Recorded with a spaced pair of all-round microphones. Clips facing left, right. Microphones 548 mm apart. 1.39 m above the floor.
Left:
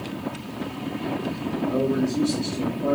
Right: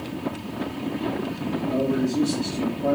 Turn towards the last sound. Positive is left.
turn(degrees=-20)  # may be behind; listen again after turning